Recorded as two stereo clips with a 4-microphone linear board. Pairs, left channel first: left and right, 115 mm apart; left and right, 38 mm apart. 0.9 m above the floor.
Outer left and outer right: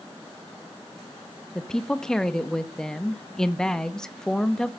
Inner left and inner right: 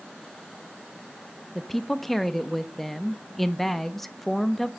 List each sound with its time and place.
1.6 s a woman speaking: 5° left (ahead or behind), 1.0 m